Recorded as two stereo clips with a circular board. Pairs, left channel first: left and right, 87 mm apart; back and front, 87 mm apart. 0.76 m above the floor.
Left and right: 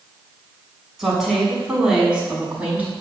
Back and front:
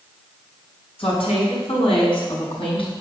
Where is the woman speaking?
175° right, 6.5 m; by 2.9 s 165° right, 5.5 m.